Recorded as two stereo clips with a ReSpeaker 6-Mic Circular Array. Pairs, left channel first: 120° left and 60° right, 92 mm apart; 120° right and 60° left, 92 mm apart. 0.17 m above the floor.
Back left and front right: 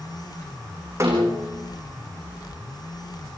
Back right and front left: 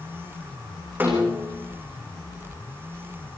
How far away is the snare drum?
About 5.5 m.